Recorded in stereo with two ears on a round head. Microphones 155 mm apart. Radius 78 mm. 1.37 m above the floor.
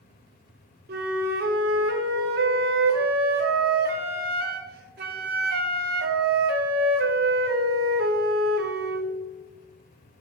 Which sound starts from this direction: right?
A flute, at 0.9 s.